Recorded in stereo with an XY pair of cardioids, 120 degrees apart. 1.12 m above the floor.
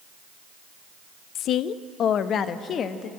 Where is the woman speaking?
65° left, 0.5 m; by 3.1 s 50° left, 1.5 m.